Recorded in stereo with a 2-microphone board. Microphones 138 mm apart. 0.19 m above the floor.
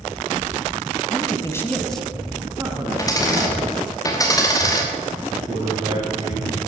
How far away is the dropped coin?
About 3 m.